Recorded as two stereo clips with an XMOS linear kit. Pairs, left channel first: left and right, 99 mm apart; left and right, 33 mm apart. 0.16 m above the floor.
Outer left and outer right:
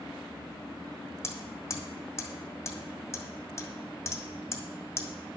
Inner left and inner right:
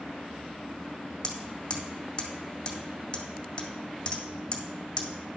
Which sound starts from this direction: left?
Hammering, at 1.2 s.